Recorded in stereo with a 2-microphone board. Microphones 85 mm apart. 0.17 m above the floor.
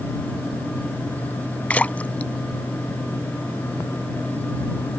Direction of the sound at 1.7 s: 20° left (ahead or behind).